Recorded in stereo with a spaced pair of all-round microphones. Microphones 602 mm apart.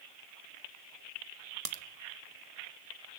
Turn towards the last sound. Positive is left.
turn(degrees=-70)  # may be behind; listen again after turning